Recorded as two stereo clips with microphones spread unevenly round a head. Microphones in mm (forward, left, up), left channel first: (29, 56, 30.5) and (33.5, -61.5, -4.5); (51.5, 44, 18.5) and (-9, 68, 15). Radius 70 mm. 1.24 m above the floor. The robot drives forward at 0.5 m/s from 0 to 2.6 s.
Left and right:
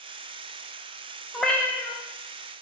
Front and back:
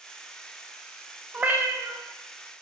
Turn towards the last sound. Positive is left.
turn(degrees=165)